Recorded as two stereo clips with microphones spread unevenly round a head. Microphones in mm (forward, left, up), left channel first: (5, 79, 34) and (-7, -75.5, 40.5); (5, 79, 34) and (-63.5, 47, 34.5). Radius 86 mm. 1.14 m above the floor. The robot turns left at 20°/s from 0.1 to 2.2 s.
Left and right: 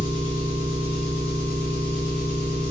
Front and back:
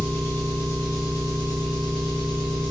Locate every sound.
0.0 s an engine running: 85° left, 1.0 m; by 2.7 s 40° left, 1.0 m